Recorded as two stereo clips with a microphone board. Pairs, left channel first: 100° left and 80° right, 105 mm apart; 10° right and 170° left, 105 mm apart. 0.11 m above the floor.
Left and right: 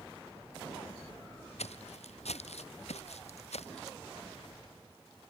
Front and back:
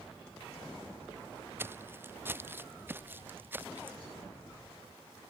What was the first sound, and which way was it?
Footsteps, 100° left.